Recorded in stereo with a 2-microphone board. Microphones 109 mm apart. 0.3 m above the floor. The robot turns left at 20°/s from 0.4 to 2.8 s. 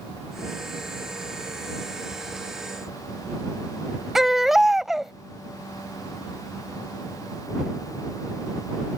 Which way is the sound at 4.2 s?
Centre (ahead or behind).